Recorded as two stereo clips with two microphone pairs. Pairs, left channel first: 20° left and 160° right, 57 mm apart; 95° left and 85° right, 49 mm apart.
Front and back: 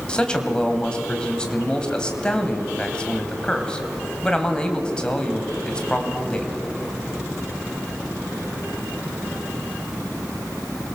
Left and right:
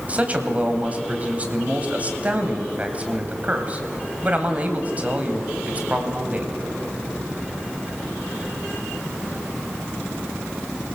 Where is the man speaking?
45° right, 2 m.